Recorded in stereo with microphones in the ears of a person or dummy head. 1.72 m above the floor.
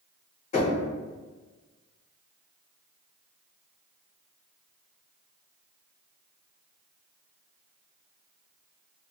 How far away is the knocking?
About 1.3 m.